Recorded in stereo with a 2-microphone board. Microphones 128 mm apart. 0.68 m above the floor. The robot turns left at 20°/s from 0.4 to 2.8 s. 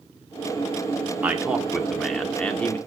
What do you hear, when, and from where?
1.2 s a man speaking: 165° right, 1.5 m; by 2.8 s 165° left, 1.5 m